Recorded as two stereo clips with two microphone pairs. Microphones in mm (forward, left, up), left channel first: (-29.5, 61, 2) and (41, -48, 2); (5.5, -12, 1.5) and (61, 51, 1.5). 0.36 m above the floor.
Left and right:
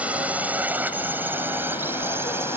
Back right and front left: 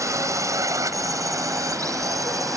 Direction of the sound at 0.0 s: 20° left.